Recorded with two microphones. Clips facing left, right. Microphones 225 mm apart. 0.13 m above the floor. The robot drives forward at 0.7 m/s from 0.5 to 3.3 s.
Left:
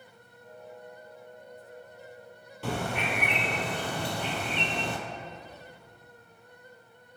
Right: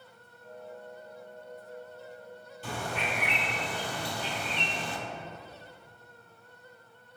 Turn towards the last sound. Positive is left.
turn(degrees=60)  # may be behind; listen again after turning